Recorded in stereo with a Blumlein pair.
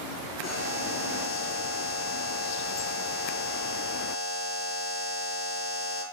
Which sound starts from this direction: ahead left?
A buzzer, at 0.4 s.